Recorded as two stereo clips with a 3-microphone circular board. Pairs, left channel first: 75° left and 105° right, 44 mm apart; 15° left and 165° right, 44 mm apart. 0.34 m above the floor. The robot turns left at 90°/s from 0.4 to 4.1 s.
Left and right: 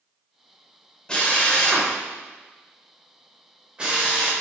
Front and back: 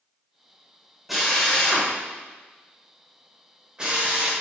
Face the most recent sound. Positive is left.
turn(degrees=-155)